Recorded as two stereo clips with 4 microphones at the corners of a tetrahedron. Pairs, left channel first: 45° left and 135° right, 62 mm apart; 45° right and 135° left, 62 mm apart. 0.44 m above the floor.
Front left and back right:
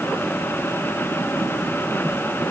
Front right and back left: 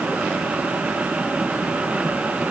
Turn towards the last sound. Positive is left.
No sound to turn to.